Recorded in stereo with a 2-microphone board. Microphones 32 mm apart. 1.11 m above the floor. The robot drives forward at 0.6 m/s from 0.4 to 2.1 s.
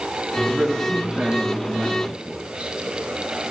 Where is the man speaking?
20° right (ahead or behind), 3.5 m; by 2.7 s 30° right (ahead or behind), 2.5 m.